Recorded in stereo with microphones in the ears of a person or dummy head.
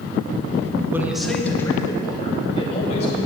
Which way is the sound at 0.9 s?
15° right (ahead or behind).